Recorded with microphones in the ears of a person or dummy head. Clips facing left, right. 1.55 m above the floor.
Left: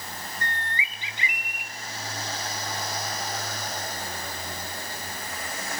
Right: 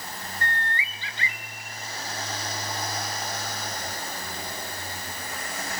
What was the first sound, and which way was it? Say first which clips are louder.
A bird: right 3 dB; 20° left (ahead or behind).